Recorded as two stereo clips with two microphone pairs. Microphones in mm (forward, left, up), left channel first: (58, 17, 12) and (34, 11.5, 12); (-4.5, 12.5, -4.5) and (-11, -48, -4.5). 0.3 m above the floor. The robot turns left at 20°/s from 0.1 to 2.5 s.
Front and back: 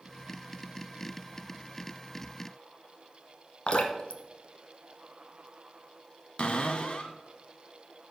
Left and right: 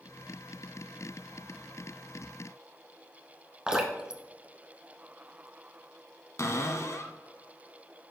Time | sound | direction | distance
3.7 | dripping | 20° right | 0.9 m
6.4 | a cupboard door | 50° left | 0.8 m